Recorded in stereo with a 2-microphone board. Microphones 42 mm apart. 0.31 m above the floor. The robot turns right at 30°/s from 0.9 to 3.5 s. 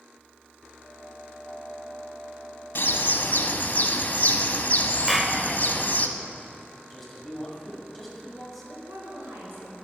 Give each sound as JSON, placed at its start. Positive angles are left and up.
{"t": 2.8, "sound": "a bird", "side_deg": 65, "distance_m": 0.6}
{"t": 5.1, "sound": "a clap", "side_deg": -10, "distance_m": 0.7}
{"t": 6.9, "sound": "a man speaking", "side_deg": 5, "distance_m": 1.9}
{"t": 8.8, "sound": "a woman speaking", "side_deg": -65, "distance_m": 3.0}